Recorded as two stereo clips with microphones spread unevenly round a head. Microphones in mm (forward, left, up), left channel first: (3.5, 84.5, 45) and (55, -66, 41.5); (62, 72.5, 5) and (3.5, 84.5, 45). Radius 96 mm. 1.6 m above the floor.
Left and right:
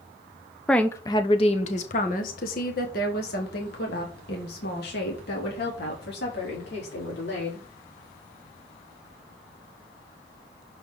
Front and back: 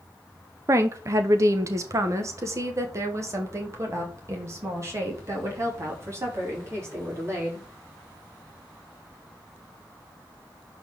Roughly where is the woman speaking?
Behind.